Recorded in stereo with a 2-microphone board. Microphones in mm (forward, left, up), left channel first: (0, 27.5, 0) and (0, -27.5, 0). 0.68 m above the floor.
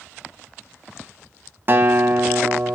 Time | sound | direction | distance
1.7 | a guitar | 40° right (ahead or behind) | 1.0 m